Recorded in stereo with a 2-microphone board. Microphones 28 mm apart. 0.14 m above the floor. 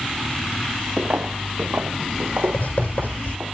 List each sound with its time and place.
1.0 s footsteps: 60° right (ahead or behind), 0.7 m; by 3.5 s 80° right, 2 m
2.5 s writing: 65° left (ahead or behind), 5.5 m